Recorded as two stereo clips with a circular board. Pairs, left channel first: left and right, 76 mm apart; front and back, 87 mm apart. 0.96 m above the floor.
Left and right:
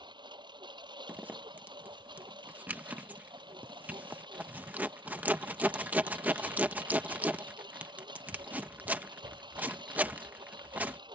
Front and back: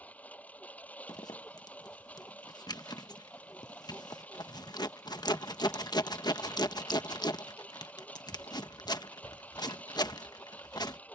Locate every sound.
0.0 s a lawn mower: 75° right
1.1 s a zipper: 25° right